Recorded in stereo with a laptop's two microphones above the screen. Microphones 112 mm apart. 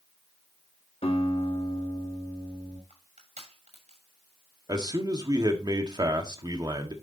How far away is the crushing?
About 6.5 m.